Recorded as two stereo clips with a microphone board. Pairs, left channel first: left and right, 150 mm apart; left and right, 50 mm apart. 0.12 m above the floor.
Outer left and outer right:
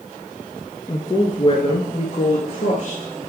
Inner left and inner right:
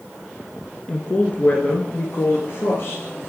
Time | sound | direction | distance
0.9 | a woman speaking | 25° left (ahead or behind) | 1.2 m